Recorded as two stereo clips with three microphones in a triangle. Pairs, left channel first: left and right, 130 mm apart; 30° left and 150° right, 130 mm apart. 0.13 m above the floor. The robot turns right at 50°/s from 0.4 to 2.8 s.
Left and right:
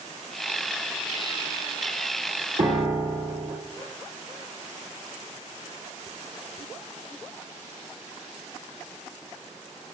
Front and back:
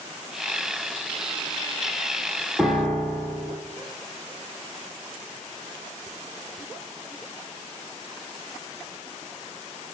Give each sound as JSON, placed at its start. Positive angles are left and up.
{"t": 2.6, "sound": "a piano", "azimuth_deg": -60, "distance_m": 1.8}